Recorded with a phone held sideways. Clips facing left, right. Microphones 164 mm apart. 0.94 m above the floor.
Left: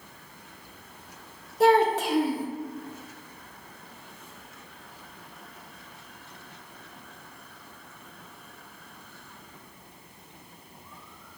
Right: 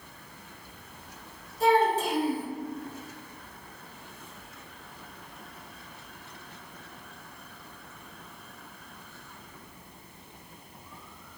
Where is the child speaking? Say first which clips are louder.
Left 3 dB; 70° left (ahead or behind), 0.6 m.